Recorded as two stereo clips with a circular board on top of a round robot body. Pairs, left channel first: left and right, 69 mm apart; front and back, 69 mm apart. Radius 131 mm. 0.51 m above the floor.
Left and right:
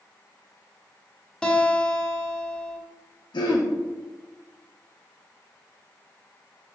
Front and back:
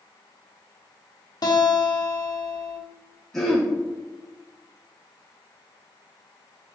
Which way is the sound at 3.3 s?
85° left.